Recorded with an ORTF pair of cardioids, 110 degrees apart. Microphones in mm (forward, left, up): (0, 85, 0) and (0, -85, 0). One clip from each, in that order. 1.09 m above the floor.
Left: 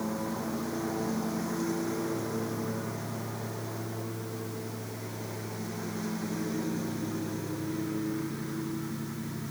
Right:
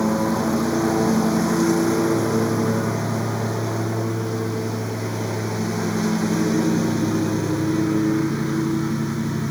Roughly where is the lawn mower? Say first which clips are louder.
Right 13 dB; ahead right.